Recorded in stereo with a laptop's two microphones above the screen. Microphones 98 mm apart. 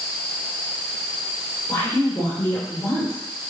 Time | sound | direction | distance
1.7 | a woman speaking | 30° left (ahead or behind) | 3.5 m